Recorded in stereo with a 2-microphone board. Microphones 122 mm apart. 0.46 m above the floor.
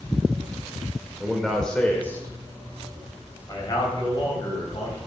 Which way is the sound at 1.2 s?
5° right (ahead or behind).